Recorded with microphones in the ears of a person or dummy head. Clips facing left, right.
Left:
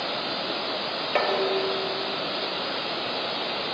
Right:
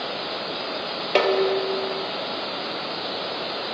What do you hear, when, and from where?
1.1 s dishes clattering: 45° right (ahead or behind), 1.3 m